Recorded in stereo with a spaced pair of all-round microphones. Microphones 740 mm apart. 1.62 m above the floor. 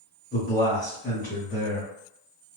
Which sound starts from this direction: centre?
A man speaking, at 0.3 s.